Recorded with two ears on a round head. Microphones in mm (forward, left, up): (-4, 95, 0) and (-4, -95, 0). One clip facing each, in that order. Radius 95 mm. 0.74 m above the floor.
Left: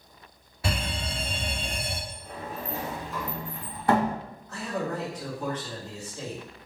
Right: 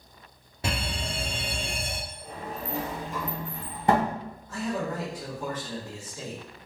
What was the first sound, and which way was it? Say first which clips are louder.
A fire alarm: even; 20° right (ahead or behind).